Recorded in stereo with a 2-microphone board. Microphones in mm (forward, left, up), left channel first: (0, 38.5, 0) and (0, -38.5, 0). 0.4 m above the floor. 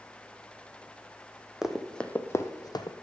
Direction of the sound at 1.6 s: 10° right (ahead or behind).